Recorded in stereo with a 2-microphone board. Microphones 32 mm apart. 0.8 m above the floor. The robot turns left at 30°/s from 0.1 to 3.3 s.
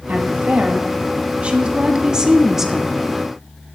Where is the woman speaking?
90° right, 1.0 m; by 3.1 s straight behind, 1.0 m.